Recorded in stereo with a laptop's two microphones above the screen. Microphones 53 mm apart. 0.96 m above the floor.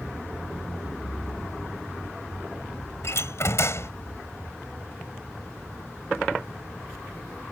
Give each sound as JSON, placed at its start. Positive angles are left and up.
{"t": 3.0, "sound": "a door slam", "side_deg": 55}